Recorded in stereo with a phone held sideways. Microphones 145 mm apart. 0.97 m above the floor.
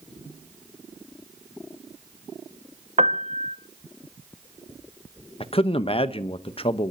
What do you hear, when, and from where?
3.0 s a piano: 50° right (ahead or behind), 0.5 m
5.4 s a man speaking: 40° left (ahead or behind), 0.8 m